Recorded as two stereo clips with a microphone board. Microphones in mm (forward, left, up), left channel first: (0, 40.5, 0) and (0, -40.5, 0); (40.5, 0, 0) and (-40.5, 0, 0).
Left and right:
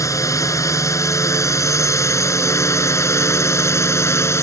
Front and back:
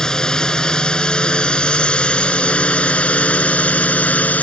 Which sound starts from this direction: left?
A drone, at 0.0 s.